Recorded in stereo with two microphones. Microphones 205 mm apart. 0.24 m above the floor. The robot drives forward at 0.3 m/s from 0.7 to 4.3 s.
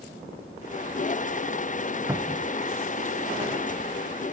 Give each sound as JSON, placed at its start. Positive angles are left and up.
{"t": 2.1, "sound": "a cupboard door", "side_deg": -10, "distance_m": 0.6}